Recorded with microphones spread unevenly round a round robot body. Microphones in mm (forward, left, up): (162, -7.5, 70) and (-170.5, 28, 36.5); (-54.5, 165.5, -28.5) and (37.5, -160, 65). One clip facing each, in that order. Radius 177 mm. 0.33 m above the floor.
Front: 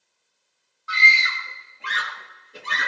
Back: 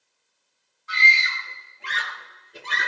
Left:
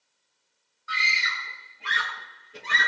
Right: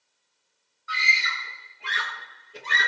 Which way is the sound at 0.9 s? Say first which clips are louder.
Front 1 dB, right 1 dB; 70° left.